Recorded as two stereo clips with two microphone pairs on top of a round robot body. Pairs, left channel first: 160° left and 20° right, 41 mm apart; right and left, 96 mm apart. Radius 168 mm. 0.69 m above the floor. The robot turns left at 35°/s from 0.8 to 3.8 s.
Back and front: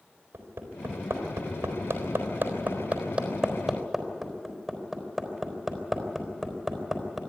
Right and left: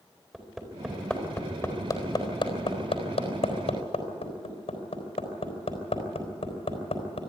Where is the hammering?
5° right, 4 m; by 7.2 s 110° right, 4 m.